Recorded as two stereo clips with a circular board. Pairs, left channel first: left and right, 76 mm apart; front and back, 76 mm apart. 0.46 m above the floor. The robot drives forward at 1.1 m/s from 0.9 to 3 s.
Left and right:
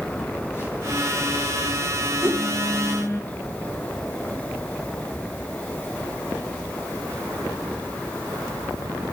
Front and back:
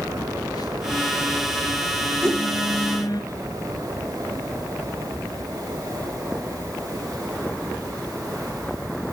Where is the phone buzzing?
30° left, 7 m; by 3.2 s 45° left, 5 m.